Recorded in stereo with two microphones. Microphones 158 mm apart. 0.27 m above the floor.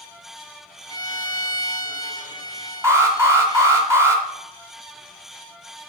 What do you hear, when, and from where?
0.9 s a violin: 25° left (ahead or behind), 1.2 m
2.8 s an alarm: 20° right (ahead or behind), 2.5 m